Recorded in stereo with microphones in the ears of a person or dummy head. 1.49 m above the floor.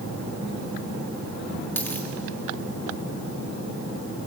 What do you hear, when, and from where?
1.8 s a dropped coin: 5° left (ahead or behind), 1.5 m